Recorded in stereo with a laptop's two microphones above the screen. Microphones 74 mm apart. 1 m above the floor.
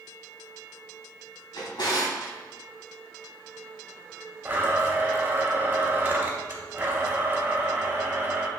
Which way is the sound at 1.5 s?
75° left (ahead or behind).